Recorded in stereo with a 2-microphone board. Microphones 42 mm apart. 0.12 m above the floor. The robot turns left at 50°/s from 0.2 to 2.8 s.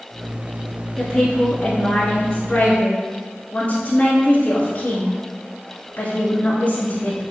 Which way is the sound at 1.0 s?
170° right.